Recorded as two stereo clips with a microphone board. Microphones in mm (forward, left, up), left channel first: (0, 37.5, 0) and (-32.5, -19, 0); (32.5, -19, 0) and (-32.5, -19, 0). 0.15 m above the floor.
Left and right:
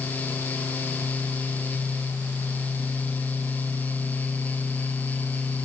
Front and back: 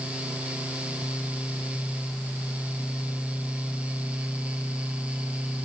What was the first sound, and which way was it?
Only background noise.